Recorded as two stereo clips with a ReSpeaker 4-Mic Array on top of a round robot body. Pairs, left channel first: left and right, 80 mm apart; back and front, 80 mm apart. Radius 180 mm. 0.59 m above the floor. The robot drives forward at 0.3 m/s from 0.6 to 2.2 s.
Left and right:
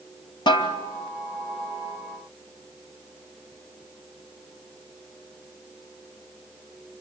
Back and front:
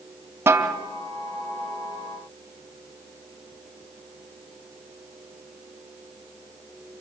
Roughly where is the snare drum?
Ahead left.